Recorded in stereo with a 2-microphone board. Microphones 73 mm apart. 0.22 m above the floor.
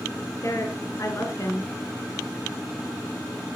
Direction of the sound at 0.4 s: 45° left (ahead or behind).